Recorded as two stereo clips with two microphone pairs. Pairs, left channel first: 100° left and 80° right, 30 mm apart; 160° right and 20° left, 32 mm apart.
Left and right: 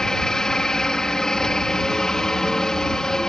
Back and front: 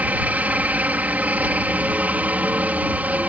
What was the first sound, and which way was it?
A helicopter, 35° left.